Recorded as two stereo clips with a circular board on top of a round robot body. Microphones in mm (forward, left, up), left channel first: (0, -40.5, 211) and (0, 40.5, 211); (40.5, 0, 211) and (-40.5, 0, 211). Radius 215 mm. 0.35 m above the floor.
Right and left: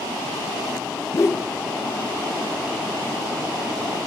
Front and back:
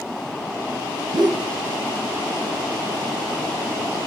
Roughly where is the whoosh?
Behind right.